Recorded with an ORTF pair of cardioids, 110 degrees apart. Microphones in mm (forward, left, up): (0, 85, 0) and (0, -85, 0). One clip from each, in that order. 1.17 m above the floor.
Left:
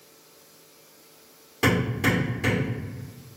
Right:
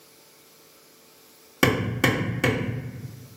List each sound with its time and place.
1.6 s hammering: 55° right, 1.2 m